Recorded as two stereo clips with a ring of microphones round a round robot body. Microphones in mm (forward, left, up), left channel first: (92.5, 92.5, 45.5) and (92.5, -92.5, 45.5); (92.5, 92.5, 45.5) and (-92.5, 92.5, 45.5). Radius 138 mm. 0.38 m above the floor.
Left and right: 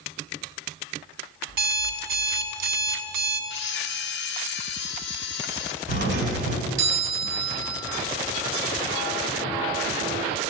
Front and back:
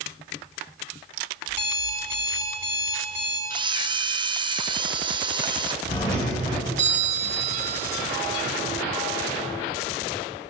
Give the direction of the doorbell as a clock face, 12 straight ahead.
3 o'clock.